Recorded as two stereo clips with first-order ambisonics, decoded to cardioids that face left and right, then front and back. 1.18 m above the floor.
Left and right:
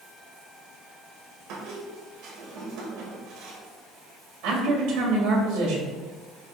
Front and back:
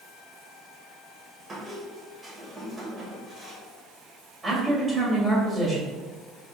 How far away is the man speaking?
About 2.5 m.